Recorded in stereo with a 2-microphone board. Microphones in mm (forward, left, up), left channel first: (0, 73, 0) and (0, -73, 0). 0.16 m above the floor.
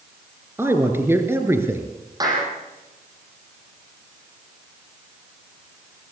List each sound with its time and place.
0.6 s a man speaking: 15° right (ahead or behind), 3 m
2.2 s a clap: 25° right (ahead or behind), 6 m